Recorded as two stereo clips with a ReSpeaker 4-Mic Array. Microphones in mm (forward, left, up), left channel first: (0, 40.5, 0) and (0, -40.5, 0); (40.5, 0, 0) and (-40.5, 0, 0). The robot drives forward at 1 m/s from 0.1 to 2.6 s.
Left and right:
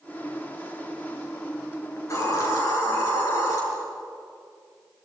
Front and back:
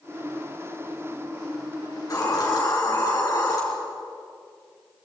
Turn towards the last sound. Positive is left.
turn(degrees=45)